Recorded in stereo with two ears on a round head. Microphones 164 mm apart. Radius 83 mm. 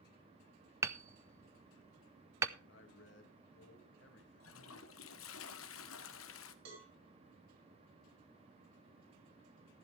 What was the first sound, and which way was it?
Hammering, 15° right (ahead or behind).